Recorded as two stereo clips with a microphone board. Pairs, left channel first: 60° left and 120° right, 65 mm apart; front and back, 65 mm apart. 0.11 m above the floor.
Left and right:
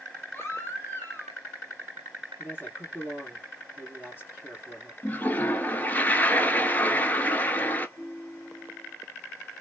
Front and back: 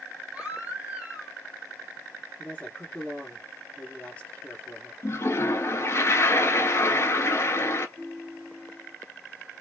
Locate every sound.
0.3 s a baby crying: 110° left, 1.3 m
2.4 s a man speaking: 45° left, 1.9 m
5.0 s a toilet flushing: 5° left, 0.6 m
8.0 s a ringtone: 105° left, 1.3 m